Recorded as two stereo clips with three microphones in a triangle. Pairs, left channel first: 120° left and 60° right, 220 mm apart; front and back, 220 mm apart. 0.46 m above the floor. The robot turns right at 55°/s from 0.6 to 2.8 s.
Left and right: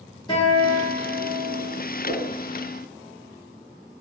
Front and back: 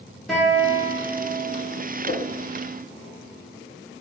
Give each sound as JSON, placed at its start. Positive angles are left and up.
{"t": 0.3, "sound": "a guitar", "azimuth_deg": 90, "distance_m": 1.1}
{"t": 2.0, "sound": "a whoosh", "azimuth_deg": 60, "distance_m": 1.7}